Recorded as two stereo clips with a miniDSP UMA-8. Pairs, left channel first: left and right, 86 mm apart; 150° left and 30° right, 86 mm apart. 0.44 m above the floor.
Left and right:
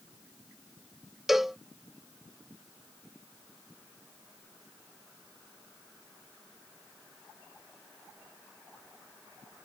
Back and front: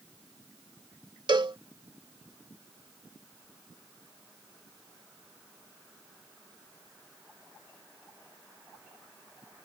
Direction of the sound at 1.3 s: 5° right.